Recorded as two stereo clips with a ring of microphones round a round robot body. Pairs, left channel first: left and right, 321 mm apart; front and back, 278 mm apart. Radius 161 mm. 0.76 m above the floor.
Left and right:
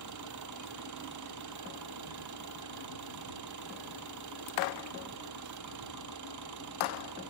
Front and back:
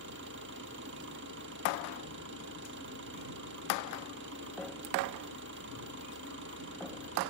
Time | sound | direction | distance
0.0 | an engine running | 125° right | ?